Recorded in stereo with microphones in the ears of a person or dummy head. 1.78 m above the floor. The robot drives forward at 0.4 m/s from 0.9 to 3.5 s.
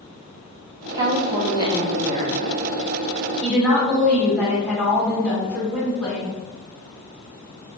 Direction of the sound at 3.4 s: 5° left (ahead or behind).